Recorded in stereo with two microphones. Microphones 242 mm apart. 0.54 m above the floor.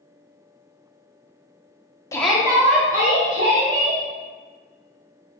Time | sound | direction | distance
2.1 | a shout | 15° left (ahead or behind) | 0.7 m